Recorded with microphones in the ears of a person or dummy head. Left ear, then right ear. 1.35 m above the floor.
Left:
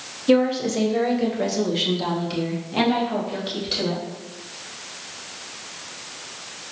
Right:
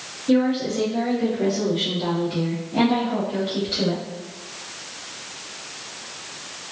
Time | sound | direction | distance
0.3 | a woman speaking | 65° left (ahead or behind) | 0.9 m